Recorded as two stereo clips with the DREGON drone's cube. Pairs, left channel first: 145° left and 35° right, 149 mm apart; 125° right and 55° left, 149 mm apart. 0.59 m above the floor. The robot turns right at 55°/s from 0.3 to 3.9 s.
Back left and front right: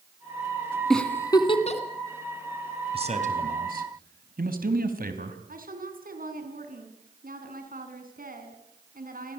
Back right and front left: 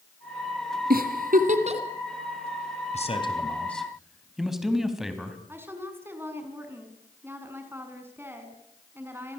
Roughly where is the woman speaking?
Ahead.